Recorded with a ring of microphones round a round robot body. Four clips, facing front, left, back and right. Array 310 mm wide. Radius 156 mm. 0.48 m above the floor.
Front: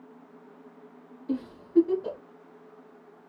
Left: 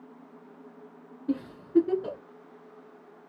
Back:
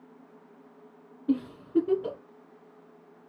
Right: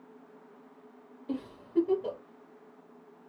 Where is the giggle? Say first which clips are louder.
Left 9 dB, back 1 dB; 130° left, 1.9 m.